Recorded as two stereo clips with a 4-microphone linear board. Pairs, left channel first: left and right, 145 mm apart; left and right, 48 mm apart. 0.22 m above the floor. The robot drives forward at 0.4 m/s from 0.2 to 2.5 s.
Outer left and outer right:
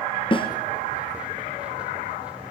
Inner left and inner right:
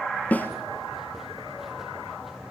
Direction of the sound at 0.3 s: 35° left (ahead or behind).